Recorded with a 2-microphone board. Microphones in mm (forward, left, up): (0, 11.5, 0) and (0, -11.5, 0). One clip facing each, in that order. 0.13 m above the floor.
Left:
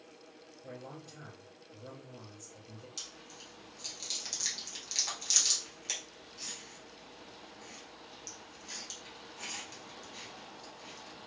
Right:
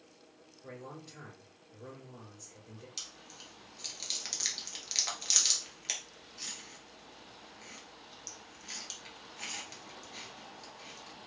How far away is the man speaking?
About 2.5 m.